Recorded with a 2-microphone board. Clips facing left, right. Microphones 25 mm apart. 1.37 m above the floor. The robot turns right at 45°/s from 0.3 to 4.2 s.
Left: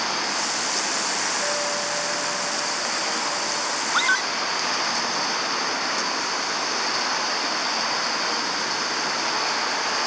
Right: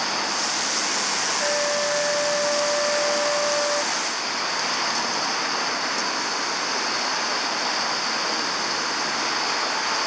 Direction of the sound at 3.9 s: 65° left (ahead or behind).